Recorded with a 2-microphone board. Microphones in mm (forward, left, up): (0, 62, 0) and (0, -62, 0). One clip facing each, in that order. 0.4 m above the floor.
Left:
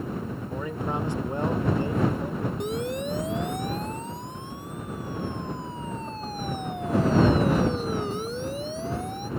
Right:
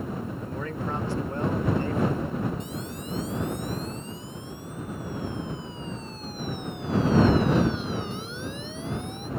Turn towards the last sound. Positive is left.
turn(degrees=35)  # may be behind; listen again after turning